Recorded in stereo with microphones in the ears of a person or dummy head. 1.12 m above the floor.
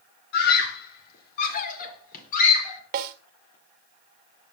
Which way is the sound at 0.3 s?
55° left (ahead or behind).